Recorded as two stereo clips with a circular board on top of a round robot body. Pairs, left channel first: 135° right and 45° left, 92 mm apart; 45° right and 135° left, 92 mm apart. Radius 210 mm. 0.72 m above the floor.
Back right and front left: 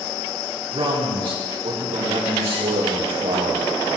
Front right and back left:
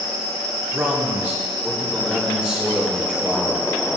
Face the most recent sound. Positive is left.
turn(degrees=30)